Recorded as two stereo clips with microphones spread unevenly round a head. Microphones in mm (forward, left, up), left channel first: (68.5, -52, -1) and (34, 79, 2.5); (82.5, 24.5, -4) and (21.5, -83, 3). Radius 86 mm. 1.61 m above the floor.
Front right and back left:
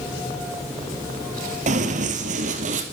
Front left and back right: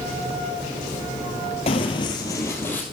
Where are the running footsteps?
105° left, 2.5 m; by 2.8 s 140° left, 3.5 m.